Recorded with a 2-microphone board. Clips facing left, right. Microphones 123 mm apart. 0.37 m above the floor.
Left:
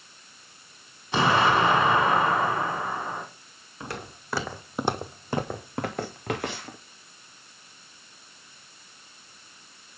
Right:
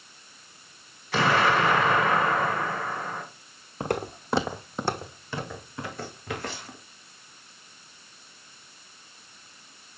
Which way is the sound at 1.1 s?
25° left (ahead or behind).